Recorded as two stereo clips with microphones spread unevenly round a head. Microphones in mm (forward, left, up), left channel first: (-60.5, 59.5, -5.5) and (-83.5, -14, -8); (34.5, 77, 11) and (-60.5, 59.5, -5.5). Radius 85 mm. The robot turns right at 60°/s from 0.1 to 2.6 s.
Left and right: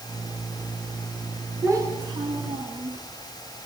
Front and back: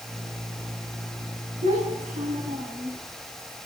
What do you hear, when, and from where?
1.6 s a child speaking: 160° right, 5 m; by 3.0 s 100° right, 5 m